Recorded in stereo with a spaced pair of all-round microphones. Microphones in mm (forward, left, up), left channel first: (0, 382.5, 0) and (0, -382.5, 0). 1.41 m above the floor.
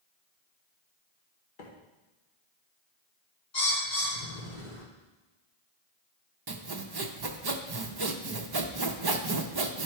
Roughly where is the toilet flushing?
No toilet flushing in this recording.